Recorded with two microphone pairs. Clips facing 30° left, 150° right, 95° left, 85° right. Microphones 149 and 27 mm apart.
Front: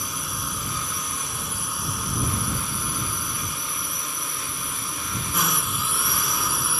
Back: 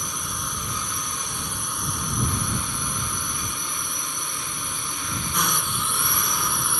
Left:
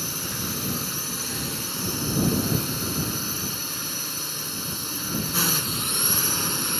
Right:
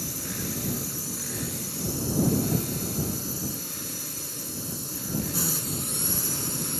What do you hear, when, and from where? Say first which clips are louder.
0.0 s a drone: even, left 3 dB; 115° left